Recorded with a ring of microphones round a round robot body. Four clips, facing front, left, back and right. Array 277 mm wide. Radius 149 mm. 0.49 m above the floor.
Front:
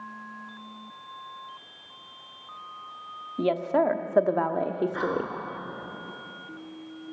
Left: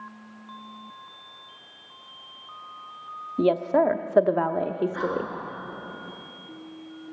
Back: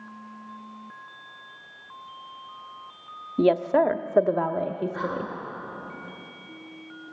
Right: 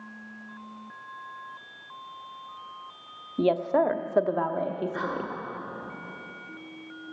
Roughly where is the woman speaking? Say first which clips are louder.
Left 2 dB, back 4 dB; behind.